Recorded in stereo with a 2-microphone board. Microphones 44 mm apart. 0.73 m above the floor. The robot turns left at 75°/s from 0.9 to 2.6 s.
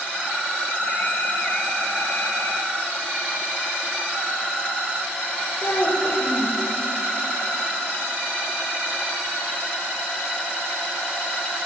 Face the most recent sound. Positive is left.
turn(degrees=45)  # may be behind; listen again after turning